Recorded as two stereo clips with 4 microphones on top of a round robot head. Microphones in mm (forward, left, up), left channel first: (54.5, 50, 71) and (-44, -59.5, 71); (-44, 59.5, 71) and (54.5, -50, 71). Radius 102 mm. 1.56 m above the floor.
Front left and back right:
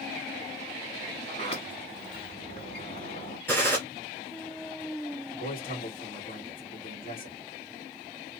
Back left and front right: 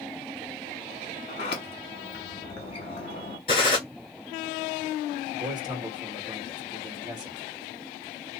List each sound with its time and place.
1.3 s a sliding door: 90° left, 1.0 m
3.5 s a gunshot: 115° left, 1.3 m
5.3 s a man speaking: 15° left, 1.9 m